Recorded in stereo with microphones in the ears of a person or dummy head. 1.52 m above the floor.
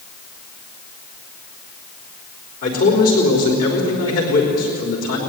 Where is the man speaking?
50° left (ahead or behind), 4.5 m.